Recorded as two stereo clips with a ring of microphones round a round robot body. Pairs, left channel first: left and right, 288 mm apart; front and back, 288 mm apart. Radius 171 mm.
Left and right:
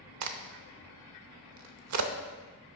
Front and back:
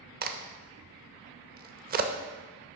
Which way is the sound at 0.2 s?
120° right.